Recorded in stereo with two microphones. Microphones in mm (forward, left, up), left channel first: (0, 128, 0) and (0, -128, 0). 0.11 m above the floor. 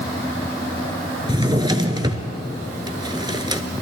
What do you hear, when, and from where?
1.3 s a drawer: 15° right (ahead or behind), 0.8 m